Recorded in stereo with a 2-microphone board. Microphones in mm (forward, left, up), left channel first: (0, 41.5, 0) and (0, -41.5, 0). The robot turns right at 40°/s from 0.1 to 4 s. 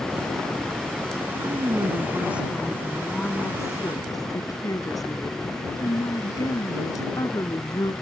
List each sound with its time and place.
1.4 s a woman speaking: 50° right; by 7.9 s 50° left